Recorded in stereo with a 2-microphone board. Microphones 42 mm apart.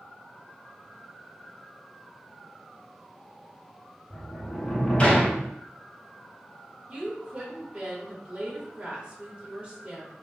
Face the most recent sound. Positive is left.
turn(degrees=-30)  # may be behind; listen again after turning